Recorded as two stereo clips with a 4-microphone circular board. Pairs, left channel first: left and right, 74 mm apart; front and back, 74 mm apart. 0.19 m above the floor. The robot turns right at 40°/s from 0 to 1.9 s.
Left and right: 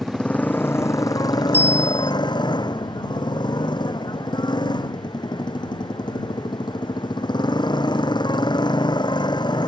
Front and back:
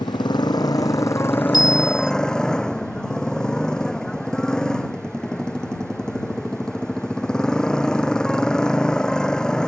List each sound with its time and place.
0.0 s a motorcycle: 5° left; by 9.7 s 80° left
1.5 s a bicycle bell: 30° left; by 2.1 s 45° left